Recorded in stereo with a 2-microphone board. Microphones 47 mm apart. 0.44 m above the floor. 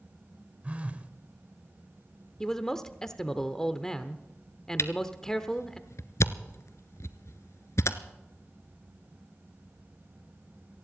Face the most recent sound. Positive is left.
turn(degrees=70)  # may be behind; listen again after turning